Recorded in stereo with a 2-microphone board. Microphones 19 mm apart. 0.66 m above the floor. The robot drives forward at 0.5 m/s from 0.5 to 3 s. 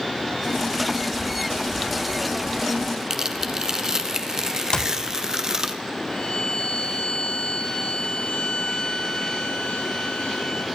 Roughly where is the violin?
Left.